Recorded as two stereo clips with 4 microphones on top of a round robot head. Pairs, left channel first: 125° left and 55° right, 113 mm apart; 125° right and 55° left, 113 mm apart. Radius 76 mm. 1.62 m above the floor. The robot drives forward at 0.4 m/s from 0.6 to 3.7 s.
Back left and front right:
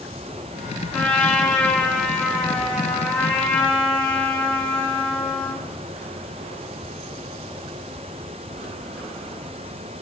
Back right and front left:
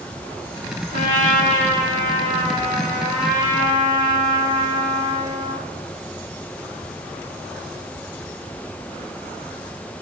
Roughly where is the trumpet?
Behind right.